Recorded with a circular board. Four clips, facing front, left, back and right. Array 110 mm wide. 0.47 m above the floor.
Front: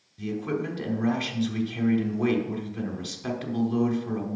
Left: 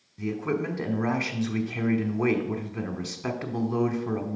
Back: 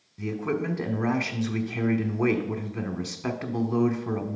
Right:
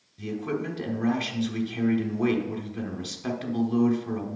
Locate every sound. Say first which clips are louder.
0.2 s a man speaking: left 2 dB, back 1 dB; 140° left, 1.0 m